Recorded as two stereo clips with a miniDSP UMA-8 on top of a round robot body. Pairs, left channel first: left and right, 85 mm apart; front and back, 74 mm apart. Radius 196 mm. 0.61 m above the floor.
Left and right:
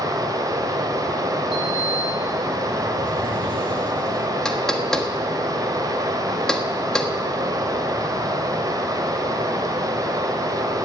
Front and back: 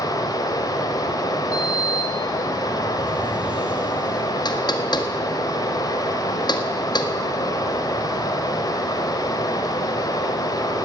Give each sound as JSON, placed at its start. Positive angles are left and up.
{"t": 0.0, "sound": "running water", "azimuth_deg": -40, "distance_m": 1.0}
{"t": 1.5, "sound": "a sliding door", "azimuth_deg": -105, "distance_m": 0.9}
{"t": 4.5, "sound": "knocking", "azimuth_deg": 5, "distance_m": 1.5}